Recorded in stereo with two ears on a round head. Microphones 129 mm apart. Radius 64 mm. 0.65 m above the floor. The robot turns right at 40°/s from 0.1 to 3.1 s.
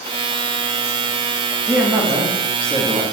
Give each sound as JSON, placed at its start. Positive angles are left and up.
{"t": 1.7, "sound": "a man speaking", "side_deg": -5, "distance_m": 0.7}